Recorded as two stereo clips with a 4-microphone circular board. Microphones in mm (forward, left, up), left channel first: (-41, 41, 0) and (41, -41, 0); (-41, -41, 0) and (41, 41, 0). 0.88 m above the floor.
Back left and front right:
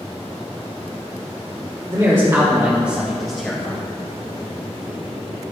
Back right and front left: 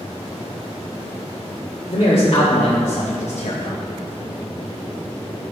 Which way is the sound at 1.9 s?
95° right.